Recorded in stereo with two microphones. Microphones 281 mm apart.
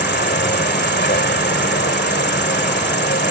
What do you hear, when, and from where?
0.0 s an insect: 35° left (ahead or behind)